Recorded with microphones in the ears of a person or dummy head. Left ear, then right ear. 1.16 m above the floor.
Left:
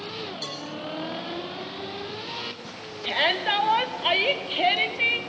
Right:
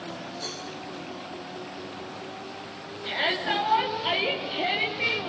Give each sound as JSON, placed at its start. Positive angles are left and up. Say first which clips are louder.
{"t": 0.4, "sound": "a cowbell", "louder": "left 1 dB", "side_deg": 35, "distance_m": 4.5}
{"t": 3.0, "sound": "a shout", "louder": "left 3 dB", "side_deg": 30, "distance_m": 2.5}